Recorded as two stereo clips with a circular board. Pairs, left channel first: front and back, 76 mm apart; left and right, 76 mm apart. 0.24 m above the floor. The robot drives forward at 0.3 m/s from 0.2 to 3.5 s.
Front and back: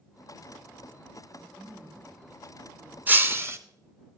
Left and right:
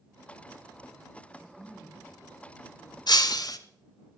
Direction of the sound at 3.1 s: 115° left.